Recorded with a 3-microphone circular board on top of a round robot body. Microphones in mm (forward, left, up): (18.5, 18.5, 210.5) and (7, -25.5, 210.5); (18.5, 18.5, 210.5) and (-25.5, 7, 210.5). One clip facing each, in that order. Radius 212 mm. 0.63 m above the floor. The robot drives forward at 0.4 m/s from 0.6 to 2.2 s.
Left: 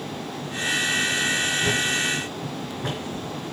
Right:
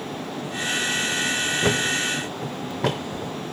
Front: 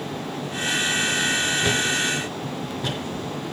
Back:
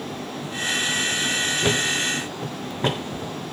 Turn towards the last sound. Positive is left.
turn(degrees=-110)